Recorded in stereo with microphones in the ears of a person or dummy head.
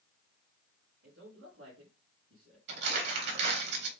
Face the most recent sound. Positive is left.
turn(degrees=-60)  # may be behind; listen again after turning